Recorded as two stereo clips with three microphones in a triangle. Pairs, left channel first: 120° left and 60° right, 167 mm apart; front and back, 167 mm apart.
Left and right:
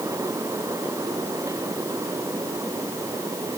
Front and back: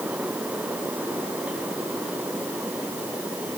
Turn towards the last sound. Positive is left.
No sound to turn to.